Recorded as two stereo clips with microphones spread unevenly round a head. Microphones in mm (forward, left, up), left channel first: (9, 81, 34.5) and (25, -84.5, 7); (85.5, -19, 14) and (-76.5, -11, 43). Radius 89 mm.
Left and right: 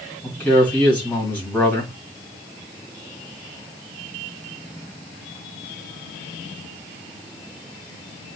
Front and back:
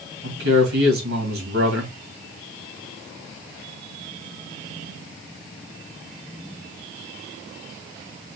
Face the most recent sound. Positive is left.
turn(degrees=180)